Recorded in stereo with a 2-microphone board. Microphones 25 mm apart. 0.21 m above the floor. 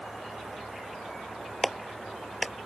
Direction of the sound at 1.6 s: 5° left (ahead or behind).